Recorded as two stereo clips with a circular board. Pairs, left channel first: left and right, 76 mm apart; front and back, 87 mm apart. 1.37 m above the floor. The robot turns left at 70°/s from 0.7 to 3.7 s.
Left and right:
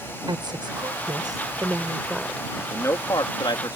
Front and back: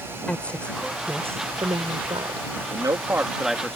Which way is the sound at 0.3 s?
75° right.